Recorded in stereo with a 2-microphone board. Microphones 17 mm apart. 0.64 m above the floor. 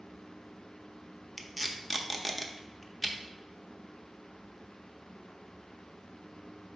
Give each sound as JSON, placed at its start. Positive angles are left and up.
{"t": 1.4, "sound": "tape being pulled", "side_deg": -5, "distance_m": 0.5}